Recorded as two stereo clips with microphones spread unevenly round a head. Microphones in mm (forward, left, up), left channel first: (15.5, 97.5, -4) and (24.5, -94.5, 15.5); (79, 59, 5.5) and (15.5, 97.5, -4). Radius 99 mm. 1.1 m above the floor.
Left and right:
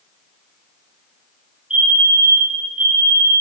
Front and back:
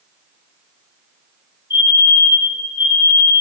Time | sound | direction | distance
1.7 | a fire alarm | straight ahead | 7 m